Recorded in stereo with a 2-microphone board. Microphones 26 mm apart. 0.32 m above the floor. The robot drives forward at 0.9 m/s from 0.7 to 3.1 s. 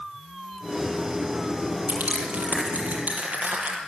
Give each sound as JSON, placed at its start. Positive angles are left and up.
{"t": 1.9, "sound": "crushing", "side_deg": -65, "distance_m": 7.5}